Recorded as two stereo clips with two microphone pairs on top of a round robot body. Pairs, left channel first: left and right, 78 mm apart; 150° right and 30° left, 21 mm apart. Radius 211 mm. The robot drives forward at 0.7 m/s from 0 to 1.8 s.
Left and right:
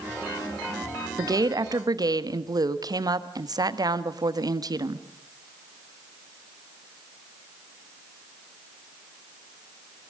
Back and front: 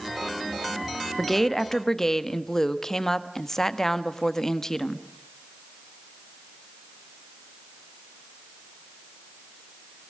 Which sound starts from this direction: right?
A woman speaking, at 1.2 s.